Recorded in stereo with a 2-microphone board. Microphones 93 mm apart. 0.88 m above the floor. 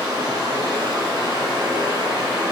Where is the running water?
55° right (ahead or behind), 3 m.